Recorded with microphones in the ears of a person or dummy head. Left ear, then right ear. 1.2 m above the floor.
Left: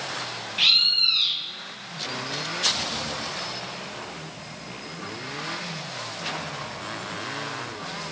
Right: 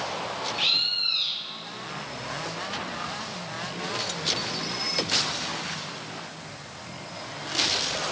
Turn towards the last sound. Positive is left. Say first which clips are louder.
# left 6 dB
turn(degrees=15)  # may be behind; listen again after turning